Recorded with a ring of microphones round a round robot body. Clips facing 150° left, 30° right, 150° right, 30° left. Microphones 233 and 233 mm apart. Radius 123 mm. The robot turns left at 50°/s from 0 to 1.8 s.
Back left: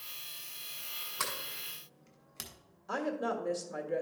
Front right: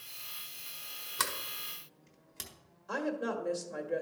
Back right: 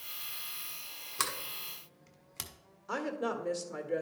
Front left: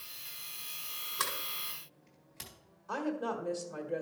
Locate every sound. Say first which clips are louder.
1.2 s a sliding door: front right 1 dB, even; 90° right, 1.4 m; by 2.5 s 125° right, 1.4 m
2.9 s a woman speaking: even, even; 120° right, 1.5 m